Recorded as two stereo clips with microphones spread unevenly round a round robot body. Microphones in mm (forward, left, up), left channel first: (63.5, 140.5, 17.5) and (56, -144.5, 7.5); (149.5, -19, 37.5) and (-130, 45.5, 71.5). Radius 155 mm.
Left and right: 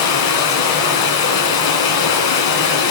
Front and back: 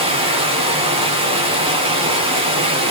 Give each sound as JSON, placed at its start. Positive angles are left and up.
{"t": 0.0, "sound": "running water", "azimuth_deg": 95, "distance_m": 2.5}